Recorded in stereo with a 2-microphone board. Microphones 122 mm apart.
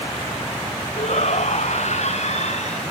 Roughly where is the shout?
Left.